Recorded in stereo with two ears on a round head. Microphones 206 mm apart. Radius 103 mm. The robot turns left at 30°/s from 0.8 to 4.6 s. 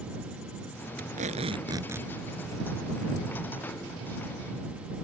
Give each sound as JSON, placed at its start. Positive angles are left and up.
{"t": 1.0, "sound": "tape being pulled", "azimuth_deg": -140}